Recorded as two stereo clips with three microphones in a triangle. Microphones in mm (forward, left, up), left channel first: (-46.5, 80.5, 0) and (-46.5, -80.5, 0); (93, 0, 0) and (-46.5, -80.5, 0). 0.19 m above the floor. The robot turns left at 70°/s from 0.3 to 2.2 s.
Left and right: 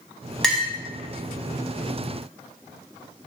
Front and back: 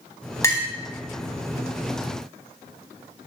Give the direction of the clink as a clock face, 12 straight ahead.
12 o'clock.